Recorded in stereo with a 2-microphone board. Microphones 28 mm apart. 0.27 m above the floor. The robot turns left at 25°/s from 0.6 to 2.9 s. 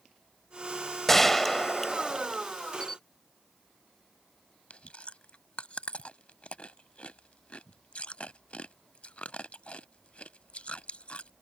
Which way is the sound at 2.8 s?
25° left (ahead or behind).